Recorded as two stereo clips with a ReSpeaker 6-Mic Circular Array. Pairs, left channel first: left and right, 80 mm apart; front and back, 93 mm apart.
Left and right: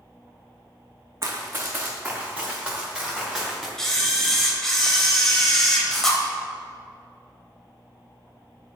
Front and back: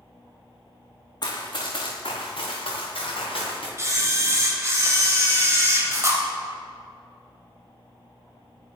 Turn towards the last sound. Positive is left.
turn(degrees=170)